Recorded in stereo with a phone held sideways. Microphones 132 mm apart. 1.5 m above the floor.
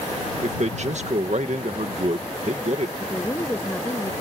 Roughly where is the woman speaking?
Centre.